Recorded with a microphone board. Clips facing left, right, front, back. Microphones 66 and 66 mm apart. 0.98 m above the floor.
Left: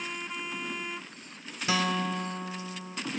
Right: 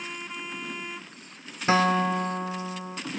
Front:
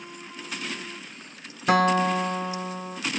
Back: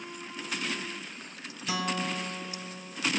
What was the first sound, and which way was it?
A guitar, 35° right.